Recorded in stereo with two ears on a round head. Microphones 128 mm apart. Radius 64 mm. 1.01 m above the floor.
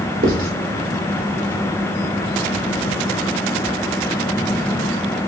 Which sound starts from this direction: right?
Writing, at 0.2 s.